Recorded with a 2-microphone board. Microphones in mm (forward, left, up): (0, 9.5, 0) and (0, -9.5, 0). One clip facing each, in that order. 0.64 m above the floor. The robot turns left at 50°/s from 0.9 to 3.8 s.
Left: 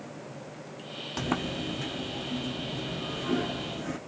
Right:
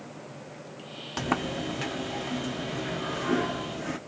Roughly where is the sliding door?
Ahead.